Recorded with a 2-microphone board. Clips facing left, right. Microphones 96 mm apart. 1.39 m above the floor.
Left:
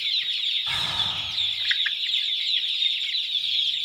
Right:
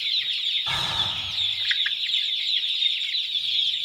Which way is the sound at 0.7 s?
25° right (ahead or behind).